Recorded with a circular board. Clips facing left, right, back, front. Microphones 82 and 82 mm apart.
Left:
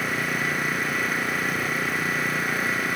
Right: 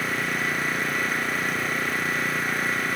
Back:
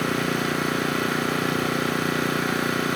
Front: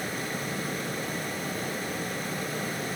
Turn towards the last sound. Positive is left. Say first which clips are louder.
# even, back 9 dB
turn(degrees=180)